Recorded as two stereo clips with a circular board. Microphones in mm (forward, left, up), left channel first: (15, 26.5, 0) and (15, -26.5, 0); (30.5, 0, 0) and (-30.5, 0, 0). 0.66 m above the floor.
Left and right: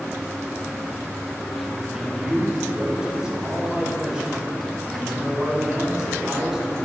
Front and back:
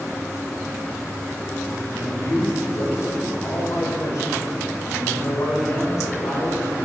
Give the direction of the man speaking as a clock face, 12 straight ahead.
1 o'clock.